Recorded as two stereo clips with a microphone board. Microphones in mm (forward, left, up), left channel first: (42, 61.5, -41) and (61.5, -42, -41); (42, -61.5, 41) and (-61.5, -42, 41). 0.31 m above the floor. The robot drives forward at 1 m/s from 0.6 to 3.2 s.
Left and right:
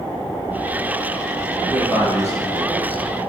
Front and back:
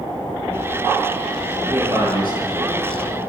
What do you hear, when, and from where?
1.6 s a man speaking: 135° right, 7 m; by 3.1 s 145° right, 8 m